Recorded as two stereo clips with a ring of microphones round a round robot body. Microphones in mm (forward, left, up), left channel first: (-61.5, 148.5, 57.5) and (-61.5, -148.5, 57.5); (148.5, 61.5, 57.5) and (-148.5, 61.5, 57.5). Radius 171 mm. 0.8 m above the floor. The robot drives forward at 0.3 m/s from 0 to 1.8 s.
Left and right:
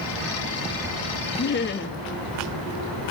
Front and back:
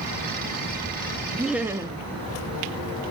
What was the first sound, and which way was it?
Laughter, 90° left.